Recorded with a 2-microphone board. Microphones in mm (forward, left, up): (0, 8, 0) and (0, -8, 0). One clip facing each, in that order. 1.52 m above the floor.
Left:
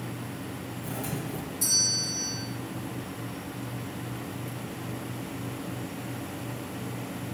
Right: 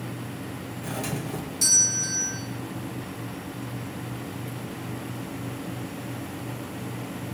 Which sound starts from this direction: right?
A doorbell, at 0.8 s.